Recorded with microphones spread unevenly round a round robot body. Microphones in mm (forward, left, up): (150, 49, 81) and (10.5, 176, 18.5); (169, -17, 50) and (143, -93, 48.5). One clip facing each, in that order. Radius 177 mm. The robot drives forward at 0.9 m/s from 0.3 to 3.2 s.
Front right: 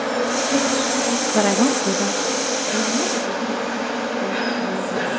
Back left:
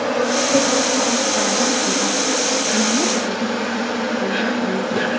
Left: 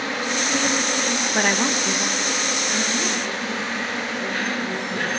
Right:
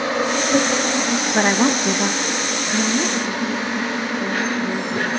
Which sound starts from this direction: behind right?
An insect, at 0.0 s.